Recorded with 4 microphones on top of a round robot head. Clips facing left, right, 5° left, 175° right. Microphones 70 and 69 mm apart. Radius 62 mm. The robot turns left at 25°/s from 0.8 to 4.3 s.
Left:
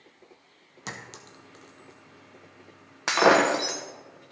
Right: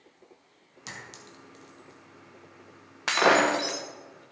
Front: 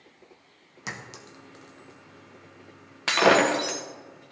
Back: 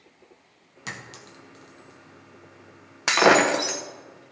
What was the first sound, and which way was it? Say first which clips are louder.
A clink: left 3 dB, even; 75° left.